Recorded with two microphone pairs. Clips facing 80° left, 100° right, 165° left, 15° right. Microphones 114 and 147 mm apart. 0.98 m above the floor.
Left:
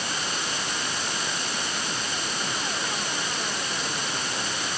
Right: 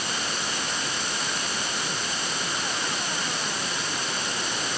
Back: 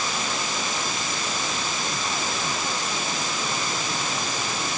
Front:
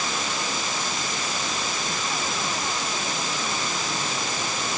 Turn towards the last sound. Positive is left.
No sound to turn to.